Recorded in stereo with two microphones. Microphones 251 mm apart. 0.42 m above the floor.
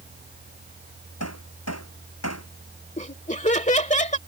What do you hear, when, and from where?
1.2 s hammering: 85° left
3.0 s laughter: 30° left (ahead or behind)